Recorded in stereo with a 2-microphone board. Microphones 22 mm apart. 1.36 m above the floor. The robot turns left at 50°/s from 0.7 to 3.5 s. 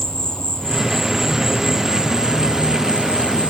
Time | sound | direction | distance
0.0 | an insect | 30° left | ?